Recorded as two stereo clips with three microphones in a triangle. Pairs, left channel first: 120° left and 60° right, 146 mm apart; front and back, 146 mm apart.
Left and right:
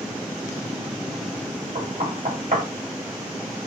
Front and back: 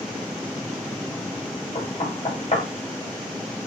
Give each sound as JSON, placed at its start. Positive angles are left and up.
{"t": 1.8, "sound": "knocking", "azimuth_deg": -40, "distance_m": 2.5}